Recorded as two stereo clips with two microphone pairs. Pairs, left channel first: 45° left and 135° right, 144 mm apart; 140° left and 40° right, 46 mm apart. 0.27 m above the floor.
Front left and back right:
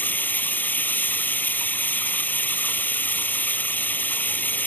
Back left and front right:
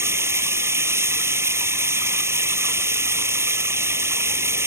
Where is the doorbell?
No doorbell in this recording.